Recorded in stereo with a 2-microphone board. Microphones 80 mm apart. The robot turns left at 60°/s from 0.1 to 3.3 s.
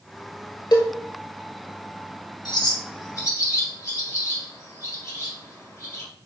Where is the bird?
70° left (ahead or behind), 1.5 m; by 6.1 s 45° left (ahead or behind), 1.5 m.